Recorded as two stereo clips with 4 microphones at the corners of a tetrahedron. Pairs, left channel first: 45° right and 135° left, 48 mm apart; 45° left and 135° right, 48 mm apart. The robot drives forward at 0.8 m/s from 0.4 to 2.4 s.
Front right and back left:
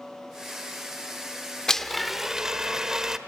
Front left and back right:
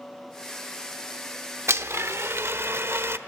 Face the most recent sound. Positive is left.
turn(degrees=-150)